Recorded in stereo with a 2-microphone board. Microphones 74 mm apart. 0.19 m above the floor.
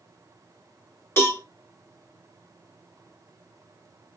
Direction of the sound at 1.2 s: 30° left (ahead or behind).